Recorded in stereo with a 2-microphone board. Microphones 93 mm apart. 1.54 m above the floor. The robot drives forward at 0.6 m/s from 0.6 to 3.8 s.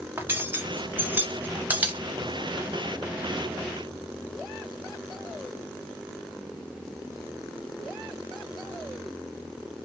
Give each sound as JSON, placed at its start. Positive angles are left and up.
{"t": 0.2, "sound": "cutlery clinking", "side_deg": -25, "distance_m": 0.7}